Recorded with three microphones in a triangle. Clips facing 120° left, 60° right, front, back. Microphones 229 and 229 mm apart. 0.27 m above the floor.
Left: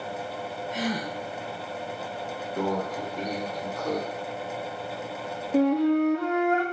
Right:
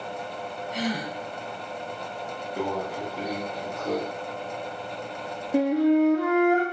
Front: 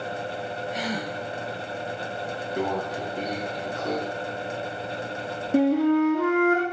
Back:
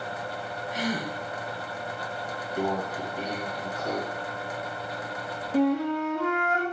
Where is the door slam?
I don't hear a door slam.